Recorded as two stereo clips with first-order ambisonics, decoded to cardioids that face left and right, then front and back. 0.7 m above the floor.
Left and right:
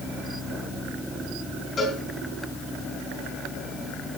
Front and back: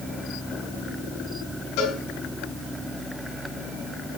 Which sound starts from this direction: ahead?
A cowbell, at 1.8 s.